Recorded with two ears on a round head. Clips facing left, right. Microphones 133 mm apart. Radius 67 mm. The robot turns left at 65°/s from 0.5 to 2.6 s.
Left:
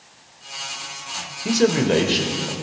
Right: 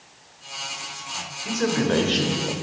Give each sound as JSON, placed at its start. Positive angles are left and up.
{"t": 1.4, "sound": "a man speaking", "azimuth_deg": 50, "distance_m": 2.5}